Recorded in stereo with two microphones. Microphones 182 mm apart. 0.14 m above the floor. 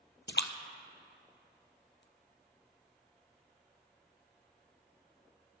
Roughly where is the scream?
I don't hear a scream.